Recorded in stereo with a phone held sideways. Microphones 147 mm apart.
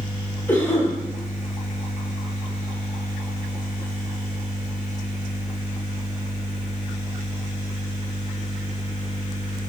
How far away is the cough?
About 2.5 m.